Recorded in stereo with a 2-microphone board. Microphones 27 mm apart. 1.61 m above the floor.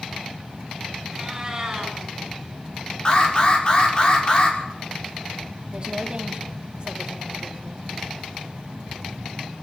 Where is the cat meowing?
25° right (ahead or behind), 6 m.